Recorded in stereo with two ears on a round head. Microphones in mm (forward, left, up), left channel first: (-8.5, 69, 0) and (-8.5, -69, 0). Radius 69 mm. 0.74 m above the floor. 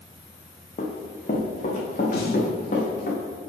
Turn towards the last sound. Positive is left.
turn(degrees=70)  # may be behind; listen again after turning